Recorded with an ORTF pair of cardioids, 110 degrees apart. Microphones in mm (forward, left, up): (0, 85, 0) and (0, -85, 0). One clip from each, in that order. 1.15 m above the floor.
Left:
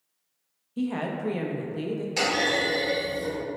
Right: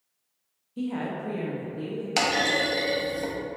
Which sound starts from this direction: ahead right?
A clunk, at 2.2 s.